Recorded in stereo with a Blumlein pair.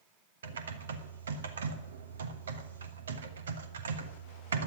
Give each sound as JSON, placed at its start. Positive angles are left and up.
{"t": 0.4, "sound": "typing on a keyboard", "azimuth_deg": -65, "distance_m": 1.2}